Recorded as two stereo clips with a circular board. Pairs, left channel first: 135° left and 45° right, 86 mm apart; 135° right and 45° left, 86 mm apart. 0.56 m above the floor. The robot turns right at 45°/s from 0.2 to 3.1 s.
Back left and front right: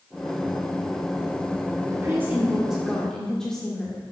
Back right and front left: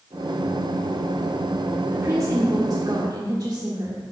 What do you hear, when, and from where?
1.9 s a woman speaking: straight ahead, 1.6 m; by 4.0 s 55° left, 1.6 m